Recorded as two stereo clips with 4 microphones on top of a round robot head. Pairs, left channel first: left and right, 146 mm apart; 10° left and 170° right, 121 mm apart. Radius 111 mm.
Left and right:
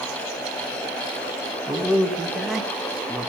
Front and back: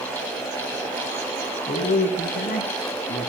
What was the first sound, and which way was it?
A man speaking, 5° left.